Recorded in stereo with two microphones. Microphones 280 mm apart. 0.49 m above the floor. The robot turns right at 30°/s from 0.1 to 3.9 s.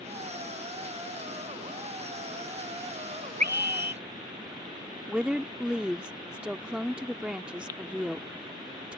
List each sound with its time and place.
3.4 s a scream: 80° right; by 4.0 s 70° right (ahead or behind)
5.1 s a woman speaking: 5° right (ahead or behind)